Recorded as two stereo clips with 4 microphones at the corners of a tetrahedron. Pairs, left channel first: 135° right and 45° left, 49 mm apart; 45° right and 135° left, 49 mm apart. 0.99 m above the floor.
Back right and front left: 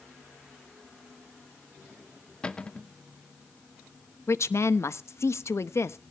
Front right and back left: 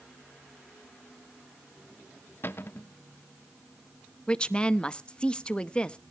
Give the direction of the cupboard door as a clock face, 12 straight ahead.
2 o'clock.